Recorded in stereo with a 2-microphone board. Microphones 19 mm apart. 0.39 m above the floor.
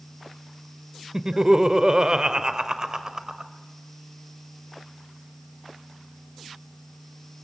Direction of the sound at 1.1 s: 30° right (ahead or behind).